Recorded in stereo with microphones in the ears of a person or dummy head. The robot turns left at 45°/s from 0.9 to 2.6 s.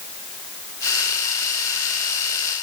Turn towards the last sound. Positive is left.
No sound to turn to.